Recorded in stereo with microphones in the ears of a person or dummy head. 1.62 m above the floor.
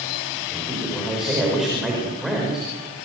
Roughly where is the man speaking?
Centre.